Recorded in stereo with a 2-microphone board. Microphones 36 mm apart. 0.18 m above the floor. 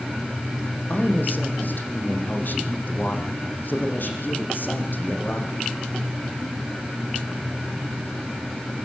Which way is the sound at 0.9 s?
55° left (ahead or behind).